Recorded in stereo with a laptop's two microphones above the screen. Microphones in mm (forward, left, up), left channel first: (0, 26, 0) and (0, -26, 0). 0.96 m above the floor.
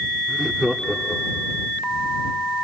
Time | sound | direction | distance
0.3 | laughter | 5° left (ahead or behind) | ?